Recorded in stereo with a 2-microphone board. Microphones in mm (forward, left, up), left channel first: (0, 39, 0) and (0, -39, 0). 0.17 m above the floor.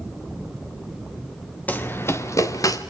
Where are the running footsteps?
20° left (ahead or behind), 2.0 m; by 2.8 s 50° left (ahead or behind), 3 m.